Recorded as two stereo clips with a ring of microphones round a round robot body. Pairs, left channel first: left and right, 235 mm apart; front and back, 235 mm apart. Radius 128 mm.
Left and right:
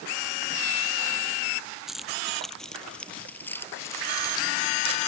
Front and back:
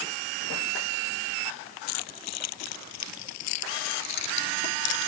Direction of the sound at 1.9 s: Straight ahead.